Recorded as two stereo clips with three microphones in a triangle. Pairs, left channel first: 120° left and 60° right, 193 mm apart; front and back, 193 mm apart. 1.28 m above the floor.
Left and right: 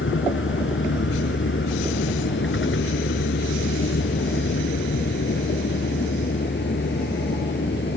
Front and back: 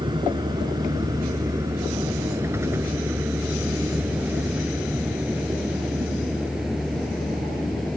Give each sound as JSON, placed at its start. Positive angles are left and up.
{"t": 0.0, "sound": "a vehicle", "azimuth_deg": 115}